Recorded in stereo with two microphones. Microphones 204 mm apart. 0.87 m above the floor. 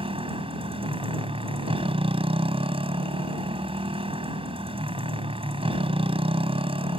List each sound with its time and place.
0.0 s a motorcycle: 25° right (ahead or behind)